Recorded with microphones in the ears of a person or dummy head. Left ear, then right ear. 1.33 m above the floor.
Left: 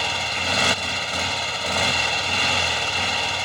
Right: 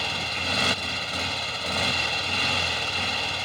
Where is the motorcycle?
20° left (ahead or behind).